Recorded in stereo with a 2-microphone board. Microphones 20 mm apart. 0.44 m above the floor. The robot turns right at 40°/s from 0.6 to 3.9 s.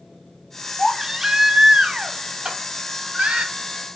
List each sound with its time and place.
0.8 s a baby crying: 170° right, 1.2 m; by 3.5 s 60° right, 1.2 m
2.5 s a clap: 60° right (ahead or behind), 2.5 m; by 2.6 s 65° right (ahead or behind), 2.5 m